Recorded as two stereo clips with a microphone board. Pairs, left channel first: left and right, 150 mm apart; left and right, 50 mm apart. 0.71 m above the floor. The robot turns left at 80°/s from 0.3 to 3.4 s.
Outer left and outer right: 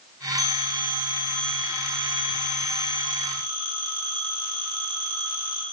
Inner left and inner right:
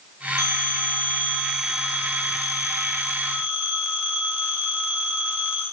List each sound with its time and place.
0.4 s a phone ringing: 90° left, 1.5 m; by 5.6 s 150° right, 1.5 m